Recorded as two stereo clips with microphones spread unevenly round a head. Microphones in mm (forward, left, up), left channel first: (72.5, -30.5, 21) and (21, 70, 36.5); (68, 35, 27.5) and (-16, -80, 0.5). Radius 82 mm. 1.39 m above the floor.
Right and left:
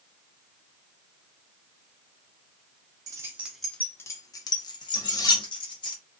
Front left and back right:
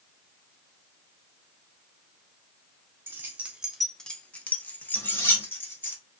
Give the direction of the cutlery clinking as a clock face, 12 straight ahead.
12 o'clock.